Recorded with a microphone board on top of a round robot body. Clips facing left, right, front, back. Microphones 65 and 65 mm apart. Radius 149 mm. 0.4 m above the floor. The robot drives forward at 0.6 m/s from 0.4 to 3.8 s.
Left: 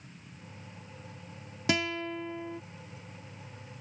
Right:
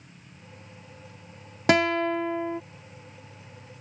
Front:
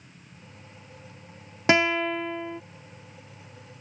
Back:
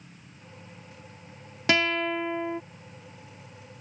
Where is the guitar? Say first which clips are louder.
Right 9 dB, front 3 dB; 65° right; by 2.6 s 115° right.